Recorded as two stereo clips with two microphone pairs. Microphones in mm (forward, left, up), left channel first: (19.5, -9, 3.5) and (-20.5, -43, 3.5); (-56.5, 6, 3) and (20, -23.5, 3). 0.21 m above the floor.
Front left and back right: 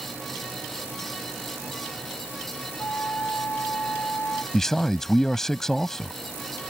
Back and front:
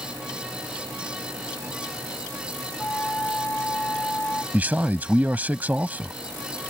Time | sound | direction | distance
2.8 | a flute | 90° left | ?
4.5 | a man speaking | 25° right | ?